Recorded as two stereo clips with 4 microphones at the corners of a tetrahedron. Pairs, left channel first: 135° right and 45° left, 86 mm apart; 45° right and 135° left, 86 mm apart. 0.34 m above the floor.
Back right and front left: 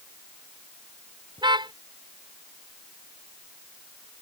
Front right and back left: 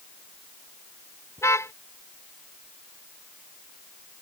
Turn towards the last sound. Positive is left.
turn(degrees=15)